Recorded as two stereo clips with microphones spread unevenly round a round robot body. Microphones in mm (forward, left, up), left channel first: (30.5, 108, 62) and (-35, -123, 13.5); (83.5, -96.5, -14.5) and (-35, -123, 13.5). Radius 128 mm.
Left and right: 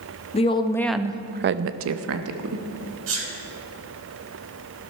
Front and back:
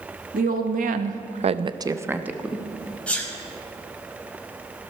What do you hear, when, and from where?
0.3 s a woman speaking: 145° left, 1.0 m; by 2.6 s 80° right, 1.4 m
3.1 s a sneeze: 70° right, 4.5 m